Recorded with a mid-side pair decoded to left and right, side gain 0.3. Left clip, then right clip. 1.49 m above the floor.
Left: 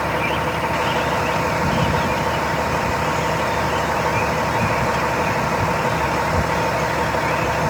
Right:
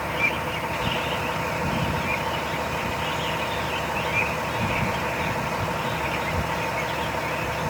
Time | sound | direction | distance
0.0 | a vehicle | 65° left | ?